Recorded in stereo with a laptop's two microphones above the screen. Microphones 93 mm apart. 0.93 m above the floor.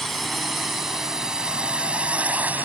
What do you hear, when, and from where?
0.0 s a drone: centre (ahead or behind); by 2.6 s 20° right (ahead or behind)